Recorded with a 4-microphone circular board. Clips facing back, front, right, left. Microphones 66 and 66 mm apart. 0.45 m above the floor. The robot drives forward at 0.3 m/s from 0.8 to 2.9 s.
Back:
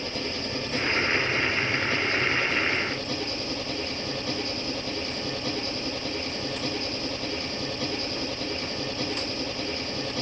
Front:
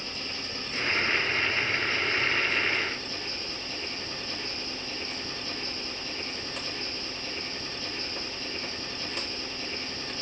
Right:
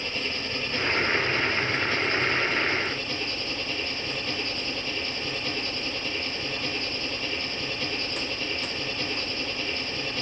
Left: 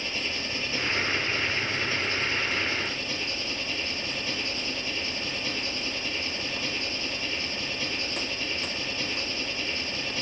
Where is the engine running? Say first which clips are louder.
Back 7 dB, right 1 dB; 175° left, 6 m.